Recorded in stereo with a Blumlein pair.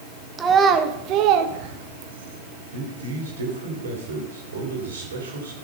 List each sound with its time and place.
0.4 s a child speaking: 15° right, 1.5 m; by 2.4 s 65° right, 1.7 m
2.7 s a man speaking: 70° right, 3.5 m